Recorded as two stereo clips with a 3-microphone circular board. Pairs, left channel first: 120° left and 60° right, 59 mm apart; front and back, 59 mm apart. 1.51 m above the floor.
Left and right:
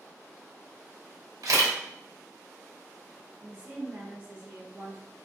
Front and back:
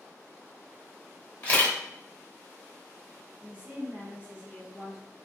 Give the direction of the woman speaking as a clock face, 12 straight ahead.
4 o'clock.